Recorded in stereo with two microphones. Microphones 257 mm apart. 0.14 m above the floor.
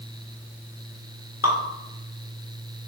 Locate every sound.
1.4 s dripping: 70° left (ahead or behind), 1.1 m